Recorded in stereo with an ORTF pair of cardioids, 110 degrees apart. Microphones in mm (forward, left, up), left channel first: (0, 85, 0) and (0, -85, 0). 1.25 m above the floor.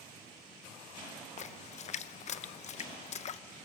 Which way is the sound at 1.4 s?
40° left.